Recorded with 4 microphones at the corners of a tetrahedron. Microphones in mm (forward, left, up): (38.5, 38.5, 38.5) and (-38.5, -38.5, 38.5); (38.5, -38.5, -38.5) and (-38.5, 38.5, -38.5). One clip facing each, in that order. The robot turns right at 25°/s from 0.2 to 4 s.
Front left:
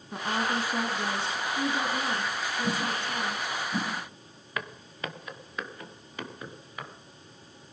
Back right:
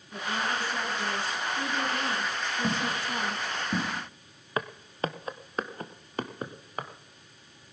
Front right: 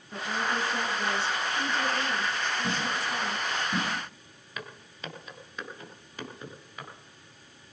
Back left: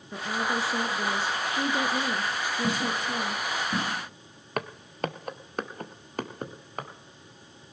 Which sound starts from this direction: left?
A woman speaking, at 0.1 s.